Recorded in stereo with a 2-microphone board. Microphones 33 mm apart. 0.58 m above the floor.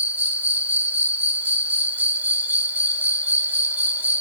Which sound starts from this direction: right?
An insect, at 0.0 s.